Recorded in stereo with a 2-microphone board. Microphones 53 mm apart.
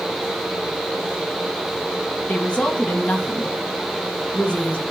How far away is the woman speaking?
About 1.8 m.